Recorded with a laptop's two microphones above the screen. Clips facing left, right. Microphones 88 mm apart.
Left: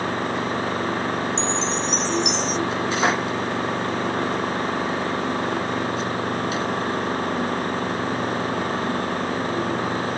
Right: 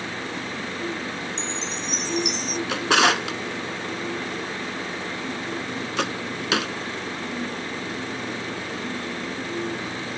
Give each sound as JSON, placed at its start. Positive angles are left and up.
{"t": 0.0, "sound": "an engine running", "side_deg": 50}
{"t": 1.4, "sound": "a chime", "side_deg": 25}
{"t": 2.7, "sound": "a drawer", "side_deg": -90}